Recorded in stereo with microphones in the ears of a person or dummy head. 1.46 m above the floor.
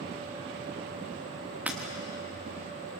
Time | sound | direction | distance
1.7 | breaking glass | 10° right (ahead or behind) | 2 m